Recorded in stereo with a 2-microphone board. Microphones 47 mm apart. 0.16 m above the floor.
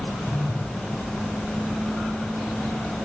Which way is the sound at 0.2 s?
70° left (ahead or behind).